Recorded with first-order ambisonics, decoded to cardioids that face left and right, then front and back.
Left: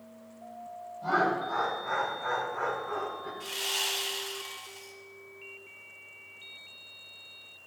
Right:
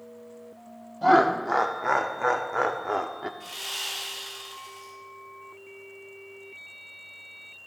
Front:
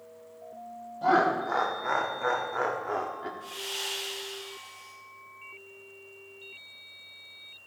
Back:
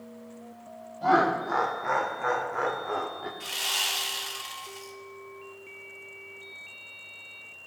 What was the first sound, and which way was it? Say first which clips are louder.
Laughter: right 8 dB, back 1 dB; 85° right.